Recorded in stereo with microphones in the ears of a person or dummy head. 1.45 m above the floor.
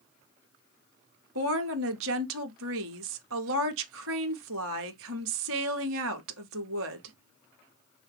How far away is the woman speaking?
About 0.6 m.